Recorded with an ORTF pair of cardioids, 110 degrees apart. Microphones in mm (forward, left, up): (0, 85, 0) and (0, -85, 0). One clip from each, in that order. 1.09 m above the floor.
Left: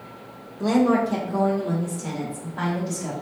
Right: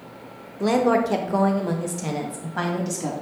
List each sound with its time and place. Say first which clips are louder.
0.6 s a woman speaking: right 1 dB; 15° right, 0.6 m; by 3.1 s 75° right, 1.4 m